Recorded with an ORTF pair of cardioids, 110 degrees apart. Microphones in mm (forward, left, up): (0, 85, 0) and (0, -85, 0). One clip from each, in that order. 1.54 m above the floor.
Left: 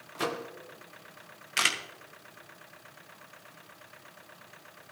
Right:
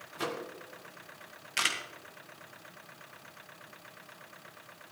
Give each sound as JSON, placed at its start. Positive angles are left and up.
{"t": 0.1, "sound": "a microwave", "azimuth_deg": 20, "distance_m": 0.9}
{"t": 1.6, "sound": "a camera shutter", "azimuth_deg": 15, "distance_m": 1.2}